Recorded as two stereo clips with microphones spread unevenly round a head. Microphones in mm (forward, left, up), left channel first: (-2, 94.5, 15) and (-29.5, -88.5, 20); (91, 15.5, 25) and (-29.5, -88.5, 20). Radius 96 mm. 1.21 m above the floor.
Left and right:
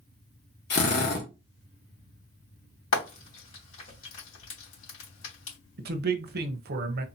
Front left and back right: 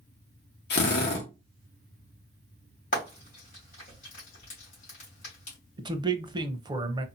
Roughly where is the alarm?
I don't hear an alarm.